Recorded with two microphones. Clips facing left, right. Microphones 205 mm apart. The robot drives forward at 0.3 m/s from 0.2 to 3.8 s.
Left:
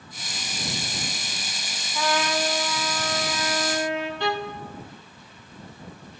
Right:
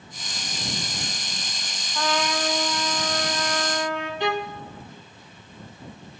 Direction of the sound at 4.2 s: 20° right (ahead or behind).